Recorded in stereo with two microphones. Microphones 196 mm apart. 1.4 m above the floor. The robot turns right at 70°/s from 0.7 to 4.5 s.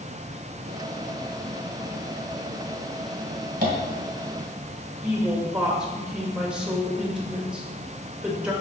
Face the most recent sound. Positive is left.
turn(degrees=-5)  # may be behind; listen again after turning